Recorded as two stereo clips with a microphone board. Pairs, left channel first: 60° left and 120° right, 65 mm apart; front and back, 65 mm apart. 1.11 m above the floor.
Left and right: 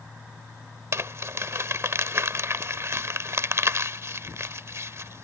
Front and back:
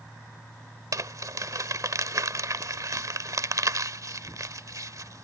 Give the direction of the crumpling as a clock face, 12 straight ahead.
5 o'clock.